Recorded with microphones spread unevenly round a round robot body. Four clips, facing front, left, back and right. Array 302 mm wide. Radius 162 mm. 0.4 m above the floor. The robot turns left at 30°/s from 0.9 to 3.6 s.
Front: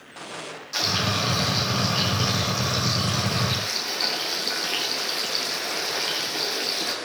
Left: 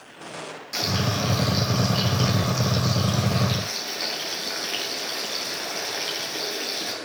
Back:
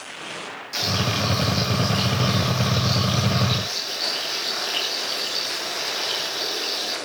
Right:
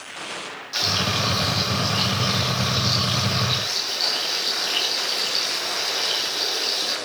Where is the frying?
125° left, 4 m; by 6.9 s 40° left, 4 m.